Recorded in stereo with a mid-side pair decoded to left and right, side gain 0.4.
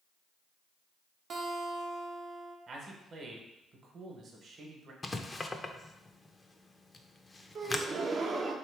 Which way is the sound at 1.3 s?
55° right.